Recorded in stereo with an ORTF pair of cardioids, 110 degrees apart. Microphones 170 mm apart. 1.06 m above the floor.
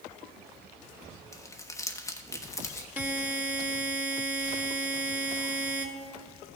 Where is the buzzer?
10° right, 1.1 m.